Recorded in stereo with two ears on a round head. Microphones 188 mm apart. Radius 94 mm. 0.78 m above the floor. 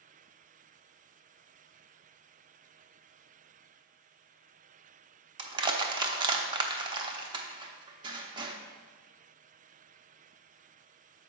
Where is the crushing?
20° right (ahead or behind), 0.7 m.